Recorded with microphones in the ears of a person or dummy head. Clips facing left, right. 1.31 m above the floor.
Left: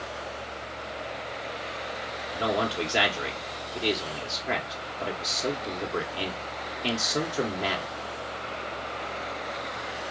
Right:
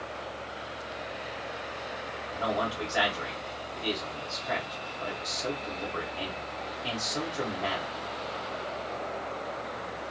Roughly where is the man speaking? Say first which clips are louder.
Left 3 dB; left.